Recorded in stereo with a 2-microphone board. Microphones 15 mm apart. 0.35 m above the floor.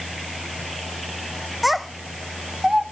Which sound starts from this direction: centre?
A child speaking, at 1.6 s.